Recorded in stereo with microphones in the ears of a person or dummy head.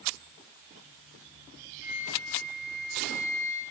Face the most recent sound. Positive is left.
turn(degrees=-60)  # may be behind; listen again after turning